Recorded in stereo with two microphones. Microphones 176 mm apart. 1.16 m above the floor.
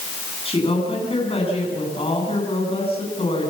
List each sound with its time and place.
0.5 s a woman speaking: 35° left (ahead or behind), 9.5 m